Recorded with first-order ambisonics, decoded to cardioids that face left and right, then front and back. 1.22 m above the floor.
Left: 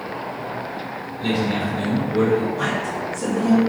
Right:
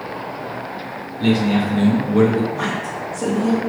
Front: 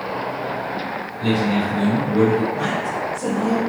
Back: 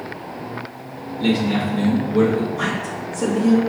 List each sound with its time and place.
1.2 s a man speaking: 135° right, 1.9 m; by 2.4 s 110° right, 1.4 m
2.5 s a woman speaking: 150° right, 1.4 m